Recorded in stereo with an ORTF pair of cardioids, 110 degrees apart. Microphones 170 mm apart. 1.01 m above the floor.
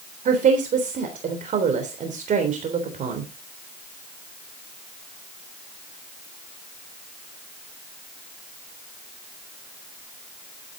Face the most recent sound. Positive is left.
turn(degrees=-50)